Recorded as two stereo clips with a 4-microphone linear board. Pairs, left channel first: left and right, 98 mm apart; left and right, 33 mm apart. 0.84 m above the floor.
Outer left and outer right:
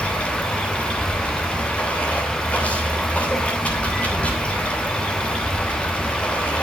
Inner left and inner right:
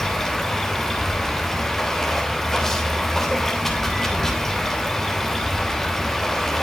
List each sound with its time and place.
0.0 s running water: 15° left (ahead or behind), 3 m